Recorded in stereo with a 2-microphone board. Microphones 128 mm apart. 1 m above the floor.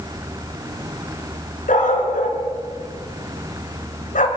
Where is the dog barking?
80° left, 4 m.